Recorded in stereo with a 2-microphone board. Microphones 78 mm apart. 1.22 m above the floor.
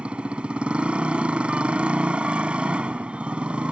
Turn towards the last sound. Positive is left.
turn(degrees=-15)  # may be behind; listen again after turning